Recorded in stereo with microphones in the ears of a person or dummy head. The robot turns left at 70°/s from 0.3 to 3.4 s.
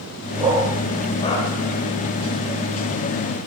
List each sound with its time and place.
0.4 s a dog barking: 30° right (ahead or behind), 2.5 m; by 1.5 s 40° left (ahead or behind), 2.5 m